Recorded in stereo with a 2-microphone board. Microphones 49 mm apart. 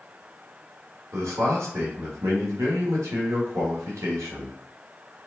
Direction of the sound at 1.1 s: 85° right.